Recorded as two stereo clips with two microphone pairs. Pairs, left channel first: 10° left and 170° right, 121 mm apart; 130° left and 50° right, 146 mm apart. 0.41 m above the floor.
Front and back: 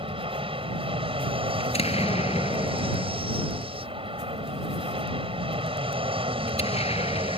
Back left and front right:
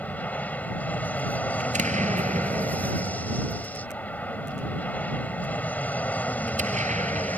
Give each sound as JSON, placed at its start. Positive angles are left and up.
{"t": 0.0, "sound": "an aircraft", "azimuth_deg": -155}
{"t": 1.6, "sound": "an explosion", "azimuth_deg": -20}